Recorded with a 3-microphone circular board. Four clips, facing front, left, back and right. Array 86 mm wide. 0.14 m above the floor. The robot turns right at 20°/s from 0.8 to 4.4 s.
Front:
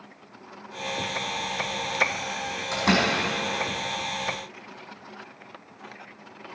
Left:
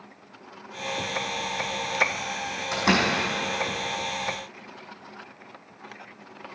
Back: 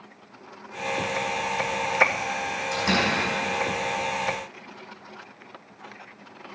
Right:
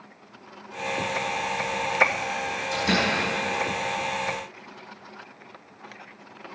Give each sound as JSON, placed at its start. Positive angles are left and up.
{"t": 2.7, "sound": "a door slam", "azimuth_deg": 60, "distance_m": 4.5}